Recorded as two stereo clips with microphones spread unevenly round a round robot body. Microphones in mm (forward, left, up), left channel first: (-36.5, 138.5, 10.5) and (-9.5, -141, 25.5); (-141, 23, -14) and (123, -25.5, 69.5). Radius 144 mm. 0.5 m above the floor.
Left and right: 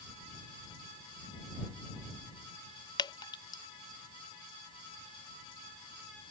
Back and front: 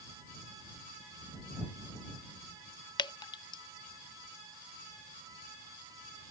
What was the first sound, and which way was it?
Dripping, 155° left.